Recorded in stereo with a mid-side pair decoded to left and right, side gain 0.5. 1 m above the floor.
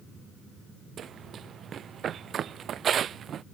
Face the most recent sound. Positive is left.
turn(degrees=-50)